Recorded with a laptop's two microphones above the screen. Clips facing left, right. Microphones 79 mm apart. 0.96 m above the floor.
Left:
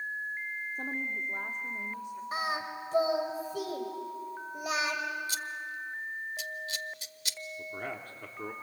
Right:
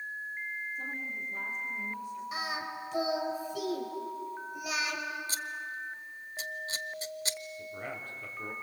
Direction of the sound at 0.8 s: 80° left.